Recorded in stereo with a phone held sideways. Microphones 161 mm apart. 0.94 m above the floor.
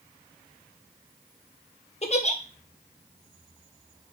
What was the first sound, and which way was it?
A giggle, 45° left (ahead or behind).